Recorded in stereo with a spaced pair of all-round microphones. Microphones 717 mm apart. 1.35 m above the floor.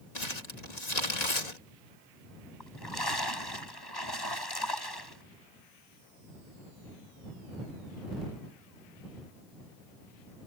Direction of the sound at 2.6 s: 30° left (ahead or behind).